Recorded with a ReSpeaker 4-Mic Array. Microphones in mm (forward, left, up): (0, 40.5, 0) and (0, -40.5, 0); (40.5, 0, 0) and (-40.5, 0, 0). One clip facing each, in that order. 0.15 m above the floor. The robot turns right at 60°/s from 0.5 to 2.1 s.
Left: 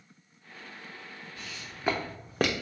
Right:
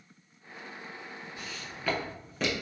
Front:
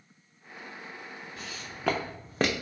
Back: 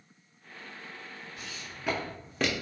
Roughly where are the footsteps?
Ahead.